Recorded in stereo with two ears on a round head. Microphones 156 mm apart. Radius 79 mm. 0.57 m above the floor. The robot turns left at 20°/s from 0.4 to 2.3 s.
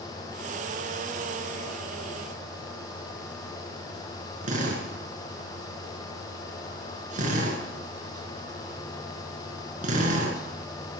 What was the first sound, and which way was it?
A drill, 50° right (ahead or behind).